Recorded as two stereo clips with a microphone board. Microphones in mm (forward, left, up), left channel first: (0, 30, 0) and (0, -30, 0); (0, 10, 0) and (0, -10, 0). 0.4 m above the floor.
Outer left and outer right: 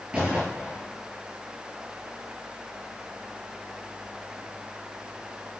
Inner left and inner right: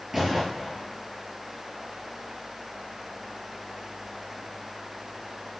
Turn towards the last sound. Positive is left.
turn(degrees=-15)  # may be behind; listen again after turning